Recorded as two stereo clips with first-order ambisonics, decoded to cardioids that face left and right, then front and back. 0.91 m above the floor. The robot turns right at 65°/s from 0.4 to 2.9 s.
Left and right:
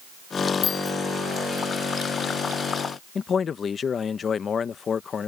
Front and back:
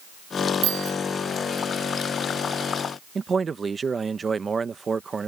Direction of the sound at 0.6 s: 145° left.